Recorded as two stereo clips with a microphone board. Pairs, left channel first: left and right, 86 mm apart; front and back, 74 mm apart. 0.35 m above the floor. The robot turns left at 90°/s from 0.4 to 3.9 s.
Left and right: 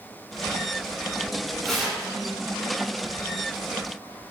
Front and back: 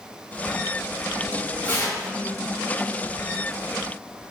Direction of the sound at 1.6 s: 10° left.